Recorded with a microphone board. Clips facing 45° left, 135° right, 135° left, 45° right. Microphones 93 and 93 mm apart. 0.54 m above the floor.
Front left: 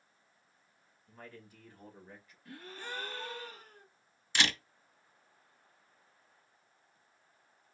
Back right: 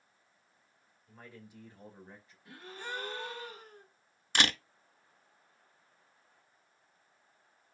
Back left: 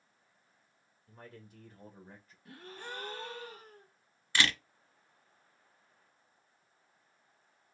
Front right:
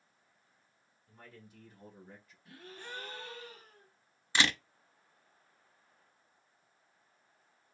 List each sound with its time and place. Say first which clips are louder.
1.1 s a man speaking: front left 1 dB, back left 3 dB; 150° left, 1.7 m; by 2.4 s 175° left, 1.8 m
2.5 s a gasp: back right 2 dB, back left 2 dB; 155° left, 1.6 m
4.3 s a camera shutter: back right 2 dB, front right 1 dB; 110° right, 0.8 m